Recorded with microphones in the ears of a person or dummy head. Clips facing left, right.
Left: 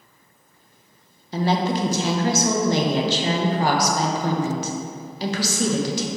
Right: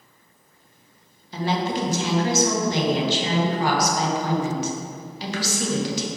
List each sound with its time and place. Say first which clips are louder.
1.3 s a woman speaking: left 3 dB; 40° left (ahead or behind), 0.8 m